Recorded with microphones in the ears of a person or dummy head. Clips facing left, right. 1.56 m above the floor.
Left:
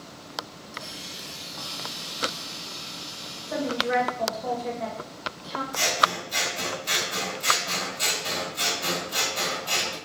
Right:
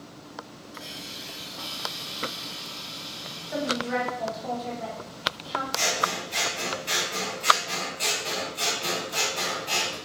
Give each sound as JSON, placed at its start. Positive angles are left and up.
{"t": 0.7, "sound": "a hiss", "side_deg": 80, "distance_m": 1.6}
{"t": 3.5, "sound": "a woman speaking", "side_deg": 75, "distance_m": 1.5}
{"t": 5.7, "sound": "scissors", "side_deg": 30, "distance_m": 1.9}